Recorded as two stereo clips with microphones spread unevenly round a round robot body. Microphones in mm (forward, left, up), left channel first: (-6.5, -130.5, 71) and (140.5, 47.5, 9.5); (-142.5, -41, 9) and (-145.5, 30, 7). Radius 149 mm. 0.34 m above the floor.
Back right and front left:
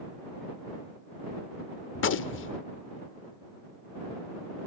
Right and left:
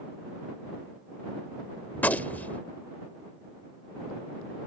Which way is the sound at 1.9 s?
140° right.